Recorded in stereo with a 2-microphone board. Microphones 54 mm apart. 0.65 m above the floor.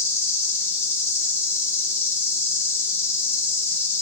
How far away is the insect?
About 1.0 m.